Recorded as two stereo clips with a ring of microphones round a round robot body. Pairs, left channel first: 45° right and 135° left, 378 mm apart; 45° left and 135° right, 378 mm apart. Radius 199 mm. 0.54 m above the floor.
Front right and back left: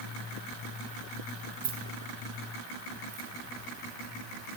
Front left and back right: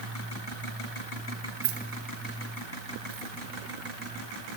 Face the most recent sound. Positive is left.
turn(degrees=175)